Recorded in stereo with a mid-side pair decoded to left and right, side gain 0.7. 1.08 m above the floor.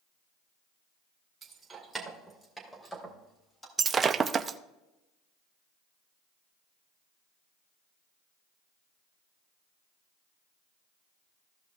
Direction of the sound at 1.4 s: 25° right.